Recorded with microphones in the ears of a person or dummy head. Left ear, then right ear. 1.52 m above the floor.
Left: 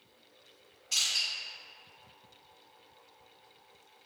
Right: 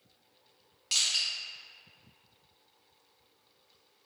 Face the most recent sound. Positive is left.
turn(degrees=-30)  # may be behind; listen again after turning